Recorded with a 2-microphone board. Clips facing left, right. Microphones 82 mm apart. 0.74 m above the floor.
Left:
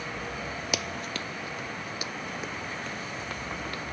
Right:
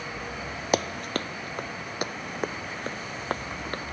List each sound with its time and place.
0.7 s running footsteps: 40° right (ahead or behind); by 3.8 s 45° right (ahead or behind)